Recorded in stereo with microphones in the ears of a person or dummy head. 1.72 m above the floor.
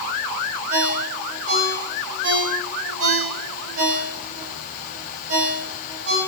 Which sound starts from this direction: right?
A ringtone, at 0.7 s.